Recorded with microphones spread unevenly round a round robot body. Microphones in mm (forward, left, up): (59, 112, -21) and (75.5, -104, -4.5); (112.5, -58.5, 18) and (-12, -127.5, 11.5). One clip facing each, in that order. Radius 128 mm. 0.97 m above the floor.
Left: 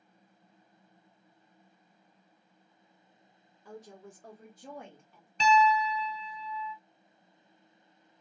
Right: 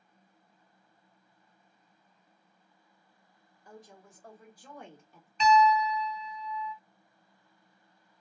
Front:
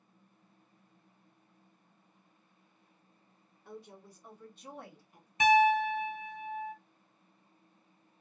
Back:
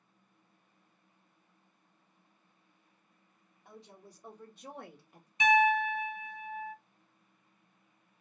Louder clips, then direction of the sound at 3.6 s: Left 5 dB, front 4 dB; 130° left.